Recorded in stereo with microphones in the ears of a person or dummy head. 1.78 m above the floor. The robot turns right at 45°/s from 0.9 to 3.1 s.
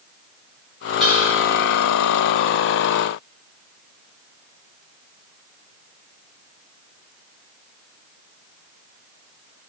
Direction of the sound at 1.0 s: 5° right (ahead or behind).